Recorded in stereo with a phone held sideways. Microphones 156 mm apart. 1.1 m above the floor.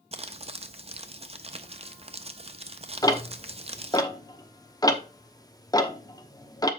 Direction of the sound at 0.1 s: 40° right (ahead or behind).